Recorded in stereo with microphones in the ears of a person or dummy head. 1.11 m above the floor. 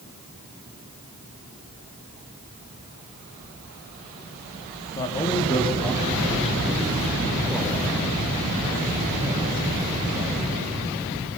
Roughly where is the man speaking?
Left.